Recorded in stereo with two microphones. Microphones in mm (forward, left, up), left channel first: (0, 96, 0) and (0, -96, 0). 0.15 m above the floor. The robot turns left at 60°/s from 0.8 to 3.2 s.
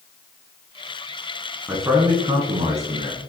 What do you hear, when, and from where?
1.7 s a man speaking: 15° right, 1.3 m; by 3.2 s 105° right, 1.3 m